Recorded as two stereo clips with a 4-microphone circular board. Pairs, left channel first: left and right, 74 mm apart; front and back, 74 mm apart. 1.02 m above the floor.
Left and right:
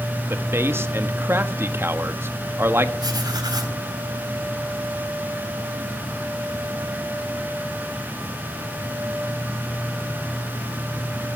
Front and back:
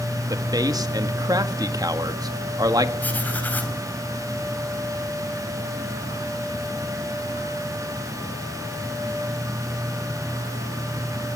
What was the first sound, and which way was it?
A man speaking, 150° right.